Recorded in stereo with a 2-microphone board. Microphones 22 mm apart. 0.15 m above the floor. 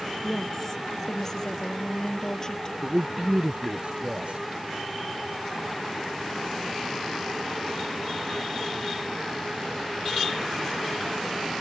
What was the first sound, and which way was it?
A woman speaking, 20° left (ahead or behind).